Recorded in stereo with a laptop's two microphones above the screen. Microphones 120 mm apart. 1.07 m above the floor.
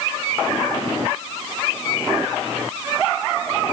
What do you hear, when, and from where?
Only background noise.